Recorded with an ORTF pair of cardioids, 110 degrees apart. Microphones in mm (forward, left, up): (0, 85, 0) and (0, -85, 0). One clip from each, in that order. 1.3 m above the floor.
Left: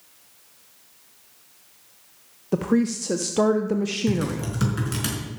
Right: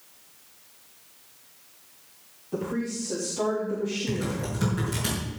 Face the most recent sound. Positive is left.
turn(degrees=50)